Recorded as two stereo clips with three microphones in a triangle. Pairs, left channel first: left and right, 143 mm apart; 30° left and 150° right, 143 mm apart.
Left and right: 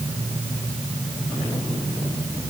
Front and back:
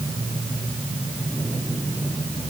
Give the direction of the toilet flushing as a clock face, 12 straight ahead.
I don't hear a toilet flushing.